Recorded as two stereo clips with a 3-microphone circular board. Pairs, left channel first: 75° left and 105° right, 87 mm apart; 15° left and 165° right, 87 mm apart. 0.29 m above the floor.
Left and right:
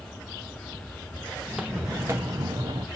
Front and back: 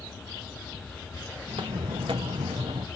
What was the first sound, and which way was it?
Footsteps, 170° left.